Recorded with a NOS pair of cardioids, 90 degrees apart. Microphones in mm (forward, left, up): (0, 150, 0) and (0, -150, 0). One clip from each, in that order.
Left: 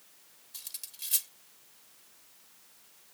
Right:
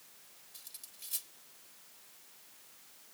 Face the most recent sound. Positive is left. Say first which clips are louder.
# left 9 dB
turn(degrees=65)